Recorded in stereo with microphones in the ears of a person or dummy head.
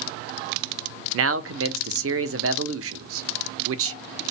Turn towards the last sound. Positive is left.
turn(degrees=-80)